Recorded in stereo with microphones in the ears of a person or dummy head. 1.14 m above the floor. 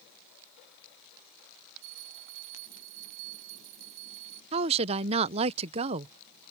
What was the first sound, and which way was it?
A bell, 80° right.